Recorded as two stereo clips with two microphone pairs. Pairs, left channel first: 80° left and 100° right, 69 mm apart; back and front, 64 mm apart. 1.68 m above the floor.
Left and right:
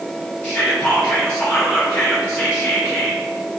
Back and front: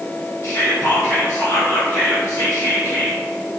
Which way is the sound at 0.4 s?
145° left.